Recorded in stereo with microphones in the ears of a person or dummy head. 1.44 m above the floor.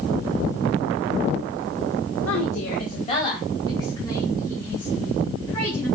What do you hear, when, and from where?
2.2 s a woman speaking: 80° left, 0.9 m; by 5.9 s 15° left (ahead or behind), 6 m